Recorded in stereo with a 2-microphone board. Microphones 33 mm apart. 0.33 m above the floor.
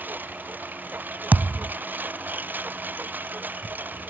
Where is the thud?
75° right (ahead or behind).